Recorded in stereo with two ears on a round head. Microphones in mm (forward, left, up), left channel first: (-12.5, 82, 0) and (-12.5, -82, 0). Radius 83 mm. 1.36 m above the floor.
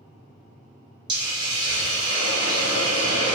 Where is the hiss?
25° right (ahead or behind), 0.8 m.